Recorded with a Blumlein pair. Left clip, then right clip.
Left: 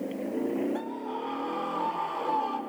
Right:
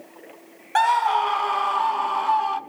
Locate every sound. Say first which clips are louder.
0.8 s a scream: right 16 dB; 50° right, 0.5 m; by 2.6 s 25° right, 1.6 m